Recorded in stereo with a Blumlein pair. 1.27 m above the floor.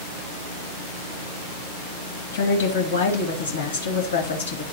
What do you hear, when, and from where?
2.3 s a woman speaking: 70° left, 2.5 m